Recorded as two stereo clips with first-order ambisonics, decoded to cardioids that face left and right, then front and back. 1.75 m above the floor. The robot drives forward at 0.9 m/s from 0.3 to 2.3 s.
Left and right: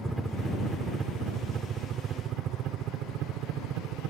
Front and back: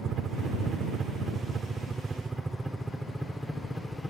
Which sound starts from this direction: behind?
A helicopter, at 0.0 s.